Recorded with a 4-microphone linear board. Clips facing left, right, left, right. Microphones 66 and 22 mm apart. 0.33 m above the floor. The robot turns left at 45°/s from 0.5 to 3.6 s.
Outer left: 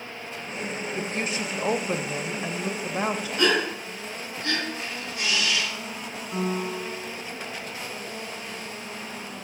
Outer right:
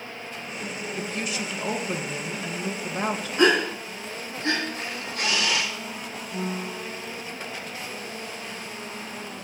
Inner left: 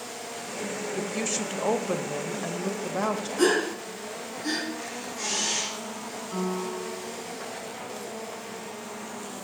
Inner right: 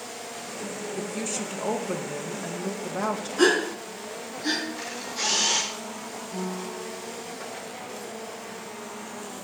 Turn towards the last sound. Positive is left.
turn(degrees=70)  # may be behind; listen again after turning